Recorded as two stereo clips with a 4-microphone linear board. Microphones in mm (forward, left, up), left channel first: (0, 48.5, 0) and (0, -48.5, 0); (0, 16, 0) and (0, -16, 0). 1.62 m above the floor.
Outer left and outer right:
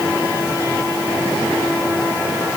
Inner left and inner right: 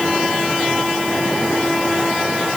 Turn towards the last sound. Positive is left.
No sound to turn to.